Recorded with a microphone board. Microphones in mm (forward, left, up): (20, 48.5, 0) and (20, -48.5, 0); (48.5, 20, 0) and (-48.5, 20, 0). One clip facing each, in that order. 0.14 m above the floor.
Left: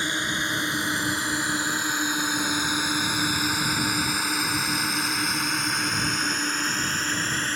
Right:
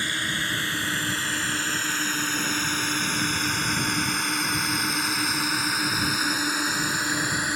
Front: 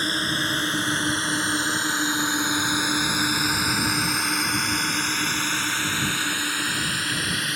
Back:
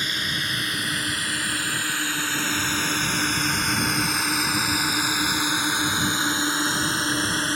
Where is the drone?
30° left; by 7.5 s 160° right.